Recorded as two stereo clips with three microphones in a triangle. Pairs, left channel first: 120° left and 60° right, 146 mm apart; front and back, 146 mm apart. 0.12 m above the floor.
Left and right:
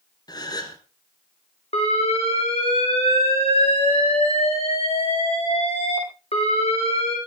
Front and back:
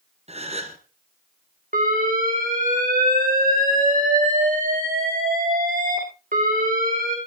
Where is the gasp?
170° left, 2.5 m.